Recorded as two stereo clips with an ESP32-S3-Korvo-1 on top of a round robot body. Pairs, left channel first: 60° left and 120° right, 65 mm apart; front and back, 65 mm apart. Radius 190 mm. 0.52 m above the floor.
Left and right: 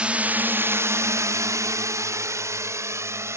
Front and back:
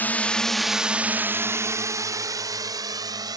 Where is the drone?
55° right; by 3.4 s 165° right.